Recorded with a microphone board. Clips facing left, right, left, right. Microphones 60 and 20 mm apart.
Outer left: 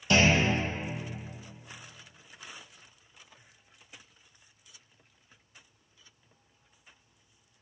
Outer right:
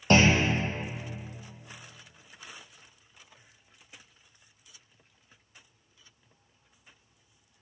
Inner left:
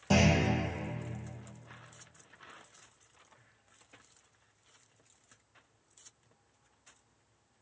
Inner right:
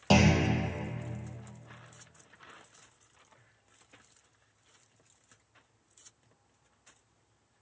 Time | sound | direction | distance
0.1 | a clunk | 45° right (ahead or behind) | 1.3 m